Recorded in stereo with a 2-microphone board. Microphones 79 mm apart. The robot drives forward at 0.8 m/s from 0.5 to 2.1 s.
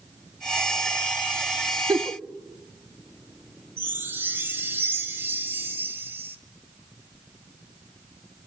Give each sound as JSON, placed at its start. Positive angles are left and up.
{"t": 1.9, "sound": "a giggle", "side_deg": -50, "distance_m": 0.9}
{"t": 3.8, "sound": "a chime", "side_deg": -30, "distance_m": 1.6}